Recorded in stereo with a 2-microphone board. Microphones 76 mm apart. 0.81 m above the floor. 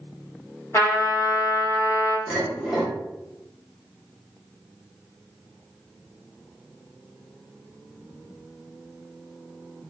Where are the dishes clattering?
5° right (ahead or behind), 1.4 m.